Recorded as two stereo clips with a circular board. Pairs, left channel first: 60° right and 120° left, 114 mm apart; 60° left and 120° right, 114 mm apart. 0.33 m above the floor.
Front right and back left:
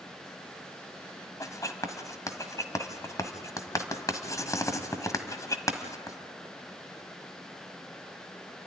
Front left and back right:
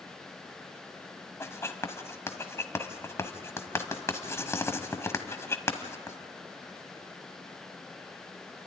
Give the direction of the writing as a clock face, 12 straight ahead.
12 o'clock.